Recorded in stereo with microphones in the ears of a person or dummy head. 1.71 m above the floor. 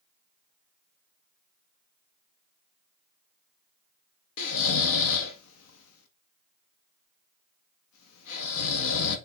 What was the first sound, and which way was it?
Snoring, 80° left.